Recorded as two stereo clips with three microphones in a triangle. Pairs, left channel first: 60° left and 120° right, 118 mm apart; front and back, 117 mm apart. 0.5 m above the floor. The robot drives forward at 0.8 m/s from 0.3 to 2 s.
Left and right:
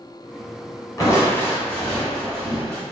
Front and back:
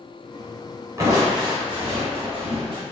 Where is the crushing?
115° left, 1.1 m; by 2.8 s 145° left, 1.6 m.